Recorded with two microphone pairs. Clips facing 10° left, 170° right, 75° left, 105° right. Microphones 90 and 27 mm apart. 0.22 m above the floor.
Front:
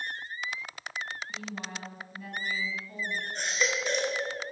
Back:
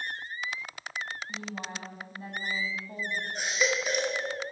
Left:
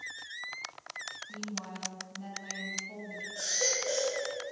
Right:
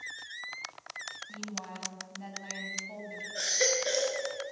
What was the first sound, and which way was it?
A woman speaking, 150° right.